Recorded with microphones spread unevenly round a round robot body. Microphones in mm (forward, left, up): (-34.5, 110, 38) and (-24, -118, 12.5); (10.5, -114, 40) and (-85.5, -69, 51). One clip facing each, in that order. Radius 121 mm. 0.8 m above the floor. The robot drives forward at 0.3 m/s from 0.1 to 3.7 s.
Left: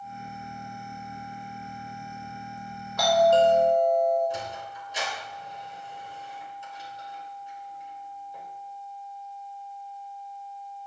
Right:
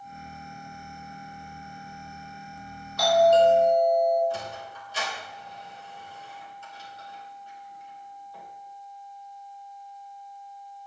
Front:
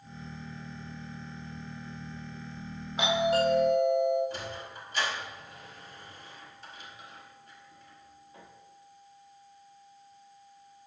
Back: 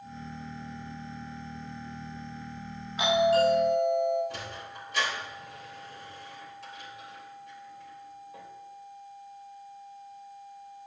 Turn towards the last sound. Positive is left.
turn(degrees=165)